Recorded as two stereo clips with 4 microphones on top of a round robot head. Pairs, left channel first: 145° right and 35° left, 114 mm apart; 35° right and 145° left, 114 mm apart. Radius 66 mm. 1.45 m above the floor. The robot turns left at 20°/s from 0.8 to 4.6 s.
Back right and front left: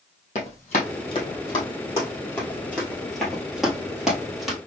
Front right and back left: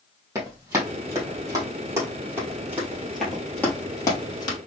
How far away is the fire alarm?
No fire alarm in this recording.